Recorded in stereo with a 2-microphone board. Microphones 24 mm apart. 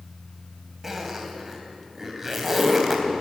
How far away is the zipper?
About 3 m.